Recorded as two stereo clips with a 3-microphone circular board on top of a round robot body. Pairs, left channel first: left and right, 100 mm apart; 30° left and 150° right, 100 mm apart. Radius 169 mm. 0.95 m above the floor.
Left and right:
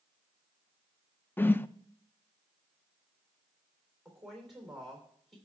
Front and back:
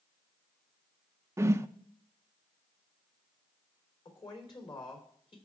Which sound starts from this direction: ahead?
A woman speaking, at 4.0 s.